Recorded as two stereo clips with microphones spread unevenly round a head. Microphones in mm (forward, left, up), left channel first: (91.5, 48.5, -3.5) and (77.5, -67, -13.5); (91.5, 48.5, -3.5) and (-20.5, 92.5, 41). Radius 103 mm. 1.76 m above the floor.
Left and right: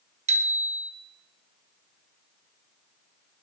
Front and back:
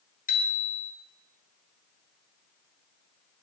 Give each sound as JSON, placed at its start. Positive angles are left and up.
{"t": 0.3, "sound": "a bicycle bell", "azimuth_deg": -80, "distance_m": 2.0}